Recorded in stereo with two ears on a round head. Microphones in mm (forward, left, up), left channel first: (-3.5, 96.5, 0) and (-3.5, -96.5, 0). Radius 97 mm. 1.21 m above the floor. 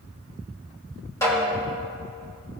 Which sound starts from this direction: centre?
A snare drum, at 1.2 s.